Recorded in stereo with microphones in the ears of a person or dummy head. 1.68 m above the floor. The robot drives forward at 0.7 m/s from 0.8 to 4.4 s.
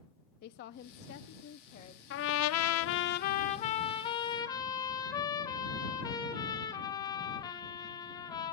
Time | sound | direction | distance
0.4 | a woman speaking | 50° left (ahead or behind) | 0.7 m
2.1 | a trumpet | 60° left (ahead or behind) | 0.7 m